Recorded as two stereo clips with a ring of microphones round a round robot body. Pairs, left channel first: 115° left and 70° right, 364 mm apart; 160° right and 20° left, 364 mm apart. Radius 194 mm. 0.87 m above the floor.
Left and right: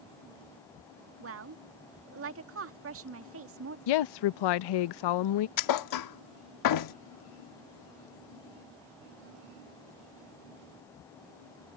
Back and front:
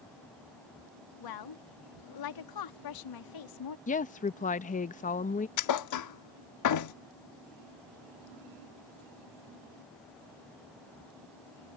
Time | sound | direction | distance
1.2 | a woman speaking | 125° right | ?
3.9 | a woman speaking | 130° left | ?
5.6 | a thud | 155° left | ?